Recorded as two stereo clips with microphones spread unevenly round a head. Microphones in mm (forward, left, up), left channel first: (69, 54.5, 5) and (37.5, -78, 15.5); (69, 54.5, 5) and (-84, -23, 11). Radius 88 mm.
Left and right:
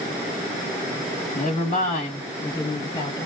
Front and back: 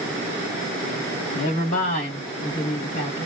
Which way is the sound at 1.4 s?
60° left.